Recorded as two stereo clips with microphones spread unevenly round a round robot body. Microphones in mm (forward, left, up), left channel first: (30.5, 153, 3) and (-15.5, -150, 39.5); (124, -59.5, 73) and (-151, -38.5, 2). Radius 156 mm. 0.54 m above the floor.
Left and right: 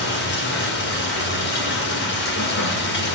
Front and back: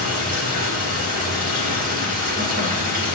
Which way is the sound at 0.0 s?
130° left.